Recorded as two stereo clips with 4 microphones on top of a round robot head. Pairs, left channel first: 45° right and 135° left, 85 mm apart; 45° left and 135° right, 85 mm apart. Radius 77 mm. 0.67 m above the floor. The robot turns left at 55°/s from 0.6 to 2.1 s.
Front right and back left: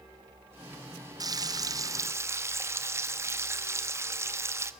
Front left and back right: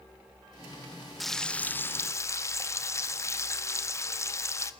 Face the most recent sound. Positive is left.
turn(degrees=90)